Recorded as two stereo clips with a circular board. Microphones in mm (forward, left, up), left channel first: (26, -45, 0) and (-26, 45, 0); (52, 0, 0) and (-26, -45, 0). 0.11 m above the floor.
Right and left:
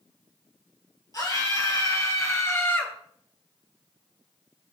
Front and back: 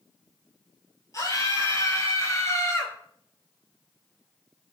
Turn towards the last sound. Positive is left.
turn(degrees=-5)